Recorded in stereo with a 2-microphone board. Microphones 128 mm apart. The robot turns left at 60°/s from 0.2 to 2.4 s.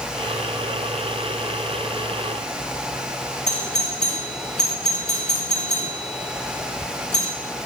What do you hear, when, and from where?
3.5 s a doorbell: 75° left (ahead or behind), 5 m